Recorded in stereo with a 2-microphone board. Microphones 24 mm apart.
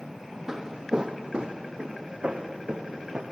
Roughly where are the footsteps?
Right.